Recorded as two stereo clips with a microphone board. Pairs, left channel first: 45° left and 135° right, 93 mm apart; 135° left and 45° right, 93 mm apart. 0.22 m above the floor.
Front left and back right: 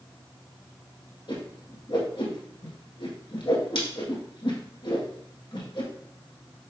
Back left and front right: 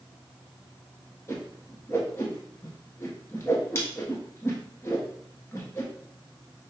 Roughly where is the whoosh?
Left.